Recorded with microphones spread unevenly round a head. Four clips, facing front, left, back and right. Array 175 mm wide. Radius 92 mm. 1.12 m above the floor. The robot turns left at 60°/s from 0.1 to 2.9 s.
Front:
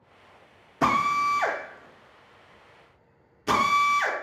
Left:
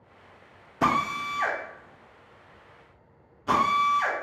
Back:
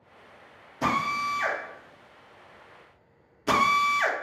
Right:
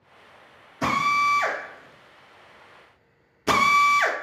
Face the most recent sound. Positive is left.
turn(degrees=-100)